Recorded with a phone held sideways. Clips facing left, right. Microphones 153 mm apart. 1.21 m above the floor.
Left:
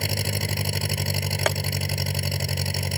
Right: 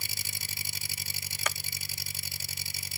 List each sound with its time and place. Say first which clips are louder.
0.0 s an engine running: left 20 dB; 90° left
1.5 s tapping: left 11 dB; 80° left